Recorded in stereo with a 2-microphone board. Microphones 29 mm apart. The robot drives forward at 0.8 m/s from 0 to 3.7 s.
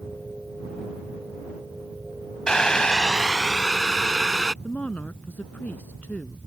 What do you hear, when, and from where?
2.5 s boiling: 25° left (ahead or behind); by 4.5 s 15° left (ahead or behind)
4.6 s a woman speaking: 60° left (ahead or behind)